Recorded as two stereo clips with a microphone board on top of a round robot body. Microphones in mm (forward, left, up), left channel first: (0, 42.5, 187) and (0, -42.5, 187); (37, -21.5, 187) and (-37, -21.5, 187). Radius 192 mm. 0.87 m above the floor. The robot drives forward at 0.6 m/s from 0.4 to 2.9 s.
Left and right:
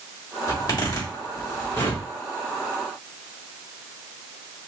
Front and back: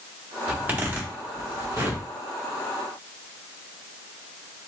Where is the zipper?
110° left, 1.5 m; by 2.0 s 140° left, 2.0 m.